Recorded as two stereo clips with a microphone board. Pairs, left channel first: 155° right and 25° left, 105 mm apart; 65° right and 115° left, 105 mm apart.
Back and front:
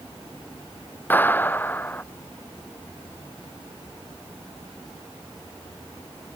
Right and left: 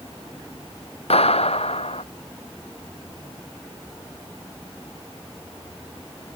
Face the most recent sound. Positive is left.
turn(degrees=-85)